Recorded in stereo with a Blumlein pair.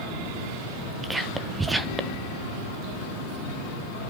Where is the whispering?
5° right, 0.9 m.